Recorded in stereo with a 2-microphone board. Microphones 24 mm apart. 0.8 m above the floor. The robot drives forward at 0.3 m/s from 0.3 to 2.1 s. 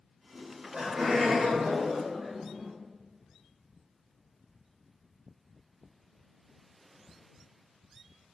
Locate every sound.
0.3 s laughter: 30° right (ahead or behind), 0.8 m; by 2.7 s 25° right (ahead or behind), 0.9 m